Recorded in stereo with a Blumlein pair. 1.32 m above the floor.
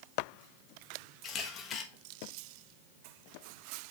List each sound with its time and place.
1.2 s a camera shutter: 25° left, 1.3 m